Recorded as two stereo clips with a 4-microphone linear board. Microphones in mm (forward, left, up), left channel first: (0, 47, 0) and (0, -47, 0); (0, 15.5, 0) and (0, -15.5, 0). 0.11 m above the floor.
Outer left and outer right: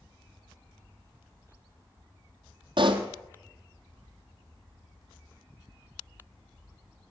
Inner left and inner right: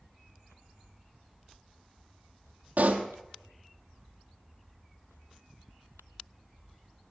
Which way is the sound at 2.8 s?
60° right (ahead or behind).